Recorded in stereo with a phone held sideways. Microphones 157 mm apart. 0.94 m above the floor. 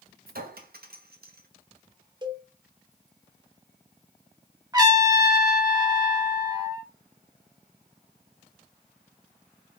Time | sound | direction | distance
0.3 | a clink | 70° right (ahead or behind) | 0.8 m
2.2 | a cowbell | 30° right (ahead or behind) | 0.6 m
4.7 | a trumpet | 25° right (ahead or behind) | 1.3 m